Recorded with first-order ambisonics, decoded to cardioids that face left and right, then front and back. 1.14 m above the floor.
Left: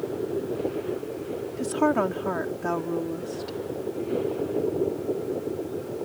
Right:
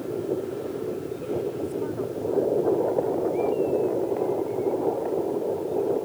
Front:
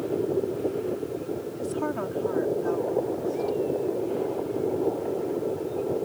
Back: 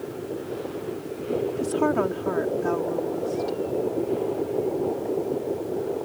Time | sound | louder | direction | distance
1.6 | a woman speaking | left 6 dB, back 6 dB | 110° left | ?